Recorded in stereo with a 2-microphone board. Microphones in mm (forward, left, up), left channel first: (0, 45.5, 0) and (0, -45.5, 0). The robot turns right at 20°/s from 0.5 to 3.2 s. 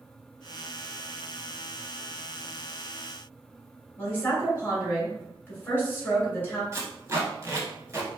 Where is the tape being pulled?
30° right (ahead or behind), 0.9 m.